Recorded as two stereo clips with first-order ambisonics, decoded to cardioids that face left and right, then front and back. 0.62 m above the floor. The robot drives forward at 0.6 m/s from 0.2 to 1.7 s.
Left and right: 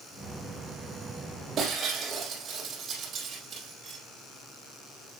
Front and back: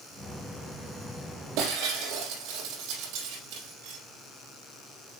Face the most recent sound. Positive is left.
turn(degrees=-160)